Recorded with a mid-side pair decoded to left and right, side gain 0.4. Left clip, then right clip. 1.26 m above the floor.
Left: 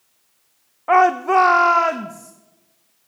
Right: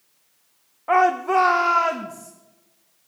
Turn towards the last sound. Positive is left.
turn(degrees=30)